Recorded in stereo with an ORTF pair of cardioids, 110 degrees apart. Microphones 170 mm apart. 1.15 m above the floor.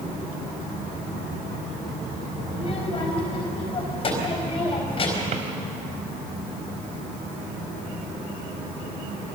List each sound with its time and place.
2.5 s a child speaking: 35° left, 4.5 m
5.3 s a drawer: 45° right, 2.5 m